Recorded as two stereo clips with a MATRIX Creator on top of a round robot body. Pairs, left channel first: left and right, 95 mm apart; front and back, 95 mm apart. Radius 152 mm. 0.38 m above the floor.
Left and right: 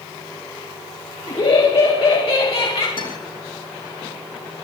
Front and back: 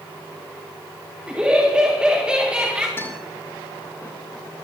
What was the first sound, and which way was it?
Laughter, 100° left.